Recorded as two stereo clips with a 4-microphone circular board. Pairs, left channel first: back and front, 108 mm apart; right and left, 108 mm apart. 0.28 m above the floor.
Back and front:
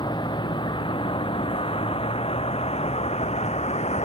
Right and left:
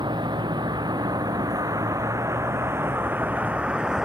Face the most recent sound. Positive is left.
turn(degrees=175)